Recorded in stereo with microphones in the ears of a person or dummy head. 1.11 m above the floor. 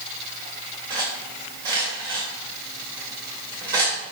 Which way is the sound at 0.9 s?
25° right (ahead or behind).